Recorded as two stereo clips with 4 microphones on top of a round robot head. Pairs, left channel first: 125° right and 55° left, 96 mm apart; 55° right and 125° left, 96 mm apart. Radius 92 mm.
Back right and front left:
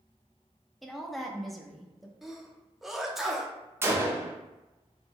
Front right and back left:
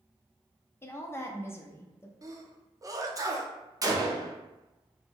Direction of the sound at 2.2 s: 140° left.